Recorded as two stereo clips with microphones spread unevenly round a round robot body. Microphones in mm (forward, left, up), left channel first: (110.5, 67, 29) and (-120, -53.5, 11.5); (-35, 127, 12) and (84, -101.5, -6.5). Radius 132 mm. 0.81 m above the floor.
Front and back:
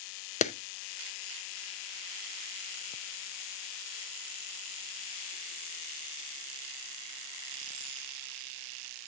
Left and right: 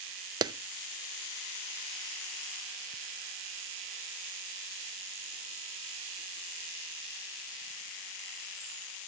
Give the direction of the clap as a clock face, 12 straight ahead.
12 o'clock.